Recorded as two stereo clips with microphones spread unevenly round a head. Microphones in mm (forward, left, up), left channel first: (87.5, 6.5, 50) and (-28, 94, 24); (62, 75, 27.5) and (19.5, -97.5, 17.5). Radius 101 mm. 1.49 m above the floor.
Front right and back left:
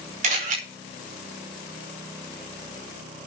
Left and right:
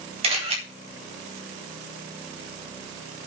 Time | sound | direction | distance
0.2 | a camera shutter | 165° right | 5 m